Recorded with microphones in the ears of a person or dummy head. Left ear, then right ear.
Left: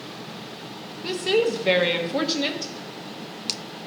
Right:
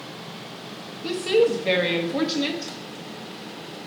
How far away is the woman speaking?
About 0.8 m.